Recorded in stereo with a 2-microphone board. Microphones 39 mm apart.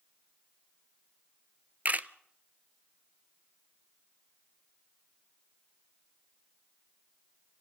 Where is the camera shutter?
45° right (ahead or behind), 0.6 m.